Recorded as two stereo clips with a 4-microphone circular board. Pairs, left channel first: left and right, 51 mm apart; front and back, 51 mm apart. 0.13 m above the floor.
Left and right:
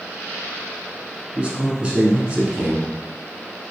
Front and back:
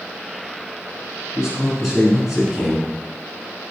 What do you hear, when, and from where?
1.4 s a man speaking: 115° right, 1.1 m